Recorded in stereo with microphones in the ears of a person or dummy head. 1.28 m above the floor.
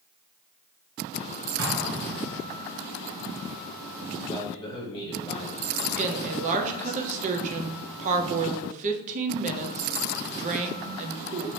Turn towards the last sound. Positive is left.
turn(degrees=-40)  # may be behind; listen again after turning